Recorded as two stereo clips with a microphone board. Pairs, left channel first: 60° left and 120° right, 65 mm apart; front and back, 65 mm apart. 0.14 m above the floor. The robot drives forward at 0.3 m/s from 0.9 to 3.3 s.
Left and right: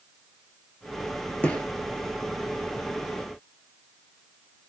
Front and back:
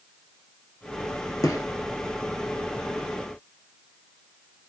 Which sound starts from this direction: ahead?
A gunshot, at 1.4 s.